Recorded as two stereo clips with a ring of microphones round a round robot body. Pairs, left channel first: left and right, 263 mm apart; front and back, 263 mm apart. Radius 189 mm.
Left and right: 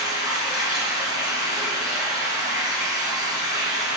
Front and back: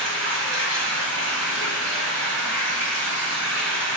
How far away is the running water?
About 4 m.